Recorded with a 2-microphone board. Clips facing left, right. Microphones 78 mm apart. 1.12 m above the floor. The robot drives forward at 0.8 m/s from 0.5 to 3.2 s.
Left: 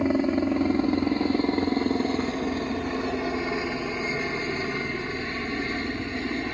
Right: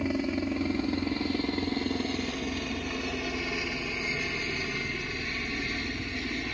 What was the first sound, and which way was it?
A helicopter, 35° left (ahead or behind).